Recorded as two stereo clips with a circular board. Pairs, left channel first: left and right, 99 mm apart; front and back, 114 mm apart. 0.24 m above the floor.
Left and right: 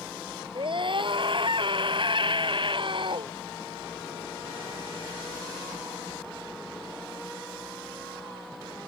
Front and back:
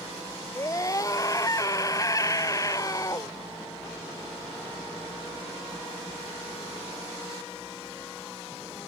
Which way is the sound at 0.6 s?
60° right.